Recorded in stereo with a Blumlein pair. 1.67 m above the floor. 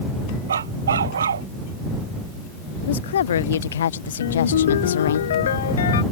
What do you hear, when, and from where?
0.5 s a dog barking: 70° right
2.8 s a woman speaking: 65° left
4.2 s a ringtone: 60° left